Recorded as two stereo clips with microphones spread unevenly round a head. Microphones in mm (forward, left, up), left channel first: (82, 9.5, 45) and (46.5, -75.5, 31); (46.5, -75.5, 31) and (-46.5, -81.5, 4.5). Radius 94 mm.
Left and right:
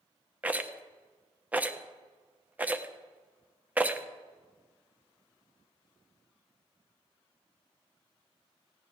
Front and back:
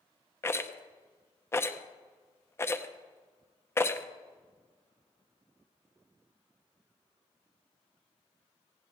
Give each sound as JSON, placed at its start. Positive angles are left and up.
{"t": 0.4, "sound": "a rattle", "azimuth_deg": -35, "distance_m": 0.9}